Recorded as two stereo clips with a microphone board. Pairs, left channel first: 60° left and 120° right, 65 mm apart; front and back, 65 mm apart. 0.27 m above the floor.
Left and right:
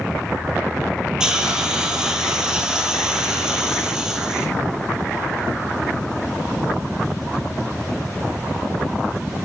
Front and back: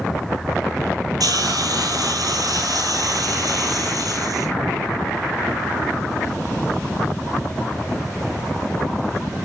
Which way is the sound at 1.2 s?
160° left.